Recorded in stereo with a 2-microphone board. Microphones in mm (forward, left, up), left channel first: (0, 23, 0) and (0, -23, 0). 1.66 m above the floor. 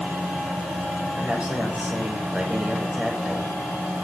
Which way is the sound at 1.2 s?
25° right (ahead or behind).